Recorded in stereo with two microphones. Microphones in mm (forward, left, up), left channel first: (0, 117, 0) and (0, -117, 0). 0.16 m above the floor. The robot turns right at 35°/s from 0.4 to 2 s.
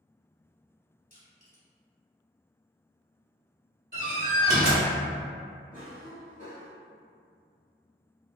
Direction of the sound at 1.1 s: 40° left (ahead or behind).